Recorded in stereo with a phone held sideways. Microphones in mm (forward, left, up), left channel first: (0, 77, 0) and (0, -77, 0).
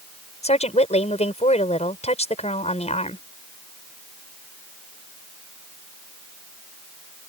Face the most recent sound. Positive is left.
turn(degrees=45)  # may be behind; listen again after turning